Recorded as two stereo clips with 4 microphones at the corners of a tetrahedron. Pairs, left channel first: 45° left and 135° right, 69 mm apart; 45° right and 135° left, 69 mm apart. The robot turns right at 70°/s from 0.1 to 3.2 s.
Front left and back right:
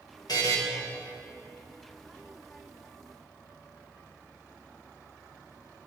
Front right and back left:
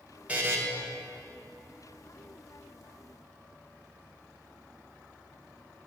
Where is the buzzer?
65° left, 2 m; by 0.6 s 85° left, 2 m.